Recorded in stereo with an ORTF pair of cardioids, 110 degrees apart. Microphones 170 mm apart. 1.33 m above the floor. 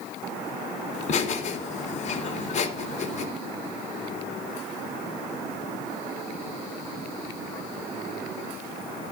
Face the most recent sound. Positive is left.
turn(degrees=45)